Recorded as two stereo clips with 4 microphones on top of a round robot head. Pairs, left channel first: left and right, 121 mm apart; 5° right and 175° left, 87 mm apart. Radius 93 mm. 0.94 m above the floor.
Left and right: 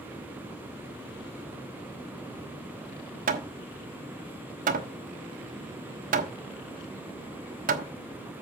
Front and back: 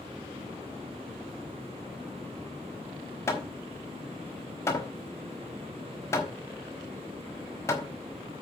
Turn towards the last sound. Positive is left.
turn(degrees=-75)